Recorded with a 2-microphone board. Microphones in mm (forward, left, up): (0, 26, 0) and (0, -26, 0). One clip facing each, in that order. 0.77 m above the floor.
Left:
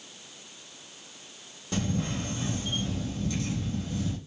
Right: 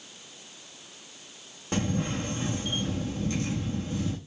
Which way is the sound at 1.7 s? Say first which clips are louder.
Right 2 dB; 40° right (ahead or behind).